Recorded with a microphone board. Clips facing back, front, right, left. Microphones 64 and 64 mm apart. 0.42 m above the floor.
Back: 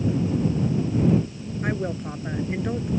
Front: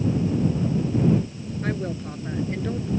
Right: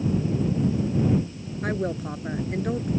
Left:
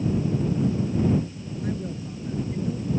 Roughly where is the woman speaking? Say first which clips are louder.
Back 1 dB, right 5 dB; right.